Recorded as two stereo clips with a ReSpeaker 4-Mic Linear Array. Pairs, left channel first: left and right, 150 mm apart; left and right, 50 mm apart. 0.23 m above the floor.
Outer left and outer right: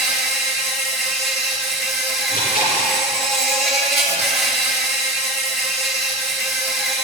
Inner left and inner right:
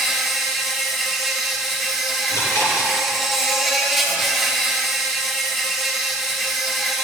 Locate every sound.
0.0 s an insect: centre (ahead or behind), 3 m
2.3 s chewing: 70° left (ahead or behind), 4.5 m